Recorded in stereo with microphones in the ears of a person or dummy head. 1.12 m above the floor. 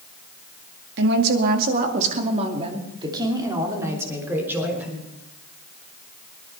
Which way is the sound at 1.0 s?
60° right (ahead or behind).